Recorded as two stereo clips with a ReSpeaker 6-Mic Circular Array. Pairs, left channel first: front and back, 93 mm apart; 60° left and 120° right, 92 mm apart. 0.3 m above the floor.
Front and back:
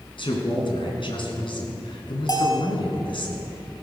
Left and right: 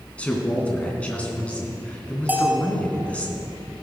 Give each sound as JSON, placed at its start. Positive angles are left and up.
{"t": 0.2, "sound": "a man speaking", "azimuth_deg": -15, "distance_m": 3.0}
{"t": 2.3, "sound": "a bell", "azimuth_deg": -50, "distance_m": 2.0}